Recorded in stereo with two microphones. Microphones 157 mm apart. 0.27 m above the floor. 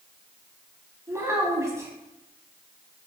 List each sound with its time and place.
1.1 s a child speaking: 20° right (ahead or behind), 0.9 m